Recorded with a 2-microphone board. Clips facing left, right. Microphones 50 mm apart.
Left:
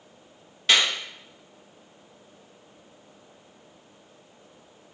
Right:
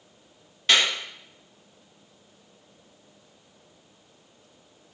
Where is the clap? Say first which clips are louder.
Even; centre (ahead or behind), 1.3 m.